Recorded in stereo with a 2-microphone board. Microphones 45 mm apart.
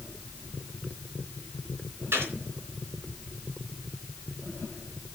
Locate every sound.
2.1 s a gunshot: 65° right (ahead or behind), 3.5 m